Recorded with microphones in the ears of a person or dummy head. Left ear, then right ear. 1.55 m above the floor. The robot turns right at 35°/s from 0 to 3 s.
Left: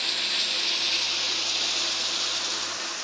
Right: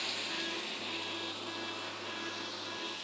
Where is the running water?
20° left, 1.3 m; by 3.0 s 125° left, 1.3 m.